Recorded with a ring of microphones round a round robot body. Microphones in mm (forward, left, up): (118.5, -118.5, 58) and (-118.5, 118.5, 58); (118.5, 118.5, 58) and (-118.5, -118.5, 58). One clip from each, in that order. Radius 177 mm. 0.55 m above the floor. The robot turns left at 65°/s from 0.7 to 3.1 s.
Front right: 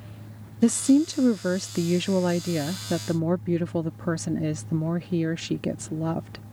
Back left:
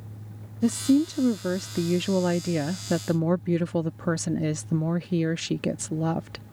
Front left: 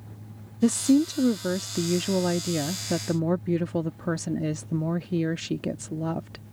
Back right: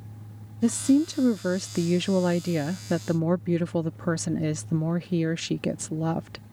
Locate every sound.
0.6 s a woman speaking: 25° right; by 6.4 s straight behind